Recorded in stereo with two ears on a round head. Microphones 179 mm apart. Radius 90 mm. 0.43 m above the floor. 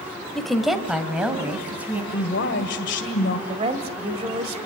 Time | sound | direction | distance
0.3 | a woman speaking | centre (ahead or behind) | 1.6 m
2.1 | a woman speaking | 60° left (ahead or behind) | 2.0 m
3.5 | a woman speaking | 30° right (ahead or behind) | 1.7 m